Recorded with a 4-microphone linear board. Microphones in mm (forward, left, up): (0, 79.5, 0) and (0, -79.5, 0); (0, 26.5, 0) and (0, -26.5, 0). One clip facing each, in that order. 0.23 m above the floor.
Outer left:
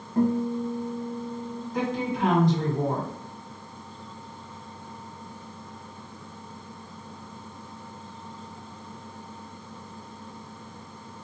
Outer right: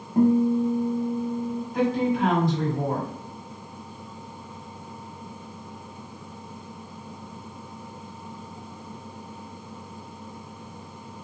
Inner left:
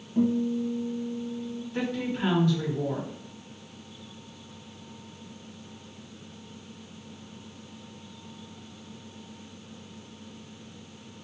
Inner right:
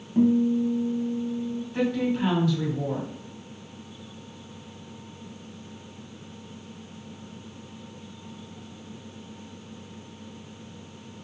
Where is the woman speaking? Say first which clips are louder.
Outer right 5 dB, inner right 5 dB; centre (ahead or behind), 1.5 m.